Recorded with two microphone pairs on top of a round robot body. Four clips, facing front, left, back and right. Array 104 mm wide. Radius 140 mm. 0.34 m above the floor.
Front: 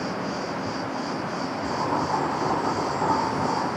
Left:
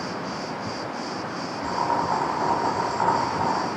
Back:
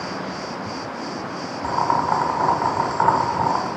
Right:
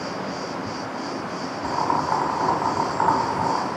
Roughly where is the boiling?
Behind.